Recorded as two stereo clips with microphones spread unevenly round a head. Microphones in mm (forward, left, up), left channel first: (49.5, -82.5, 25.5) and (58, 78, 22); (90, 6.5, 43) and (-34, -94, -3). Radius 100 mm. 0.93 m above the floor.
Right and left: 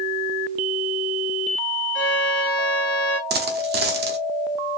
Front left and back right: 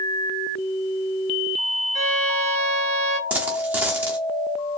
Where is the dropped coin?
130° left, 0.7 m.